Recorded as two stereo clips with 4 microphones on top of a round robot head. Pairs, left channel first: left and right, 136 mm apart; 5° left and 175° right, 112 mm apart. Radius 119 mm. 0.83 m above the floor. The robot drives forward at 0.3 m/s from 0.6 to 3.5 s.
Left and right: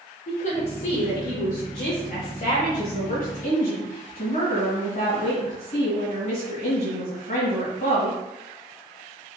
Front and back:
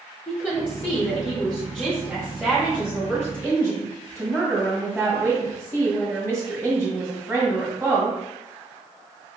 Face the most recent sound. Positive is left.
turn(degrees=115)